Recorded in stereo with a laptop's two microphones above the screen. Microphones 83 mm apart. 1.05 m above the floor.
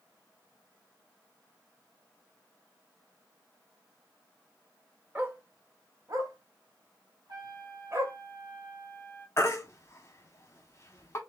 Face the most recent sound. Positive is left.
turn(degrees=35)  # may be behind; listen again after turning